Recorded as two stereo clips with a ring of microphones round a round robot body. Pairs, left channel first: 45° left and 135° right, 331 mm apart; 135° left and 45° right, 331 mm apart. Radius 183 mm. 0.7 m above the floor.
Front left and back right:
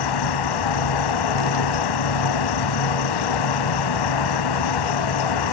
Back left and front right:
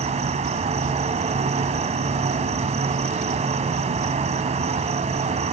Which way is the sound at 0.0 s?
25° left.